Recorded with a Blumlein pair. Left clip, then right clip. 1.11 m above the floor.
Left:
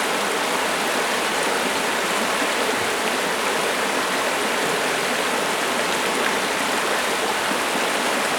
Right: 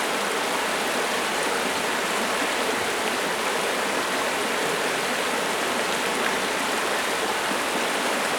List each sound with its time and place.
0.0 s running water: 10° left, 1.0 m